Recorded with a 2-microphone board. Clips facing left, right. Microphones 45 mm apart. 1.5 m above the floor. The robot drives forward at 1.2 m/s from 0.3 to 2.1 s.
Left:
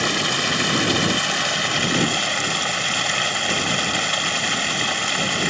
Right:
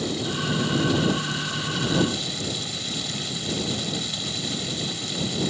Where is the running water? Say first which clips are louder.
Left 6 dB; 80° left; by 5.5 s 70° left (ahead or behind).